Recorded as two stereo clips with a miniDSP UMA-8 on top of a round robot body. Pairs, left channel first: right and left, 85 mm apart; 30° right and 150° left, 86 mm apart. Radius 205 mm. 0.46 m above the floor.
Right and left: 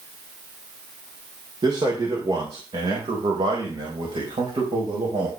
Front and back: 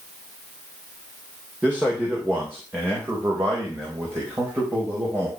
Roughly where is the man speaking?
Left.